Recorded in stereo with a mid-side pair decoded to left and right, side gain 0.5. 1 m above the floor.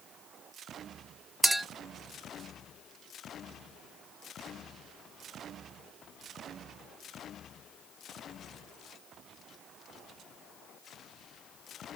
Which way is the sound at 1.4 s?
15° right.